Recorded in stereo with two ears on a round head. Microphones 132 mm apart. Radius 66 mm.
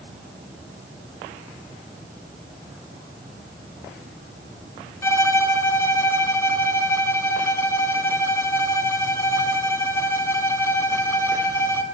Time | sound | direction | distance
5.0 | a violin | 15° left (ahead or behind) | 3 m